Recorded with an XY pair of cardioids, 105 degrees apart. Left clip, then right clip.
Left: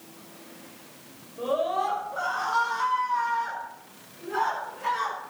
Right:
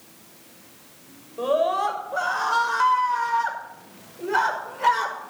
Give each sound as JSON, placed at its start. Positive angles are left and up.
{"t": 1.4, "sound": "a scream", "azimuth_deg": -50, "distance_m": 6.5}